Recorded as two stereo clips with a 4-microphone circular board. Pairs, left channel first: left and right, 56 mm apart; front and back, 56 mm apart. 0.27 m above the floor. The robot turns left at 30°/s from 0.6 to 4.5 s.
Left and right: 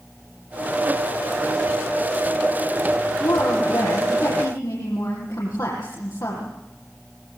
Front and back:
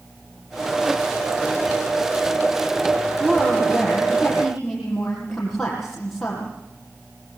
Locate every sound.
3.2 s a woman speaking: 125° left, 9 m; by 6.5 s 85° left, 9 m